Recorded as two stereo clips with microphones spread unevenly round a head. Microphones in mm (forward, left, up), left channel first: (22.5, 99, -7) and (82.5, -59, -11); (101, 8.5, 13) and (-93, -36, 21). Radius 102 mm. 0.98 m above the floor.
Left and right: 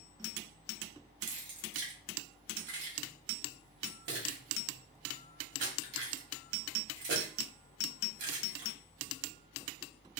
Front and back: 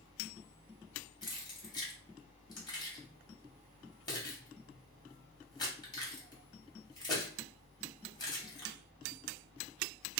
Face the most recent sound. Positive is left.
turn(degrees=-60)